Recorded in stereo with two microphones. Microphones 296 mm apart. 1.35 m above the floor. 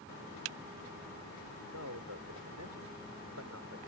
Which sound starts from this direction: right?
A man speaking, at 1.7 s.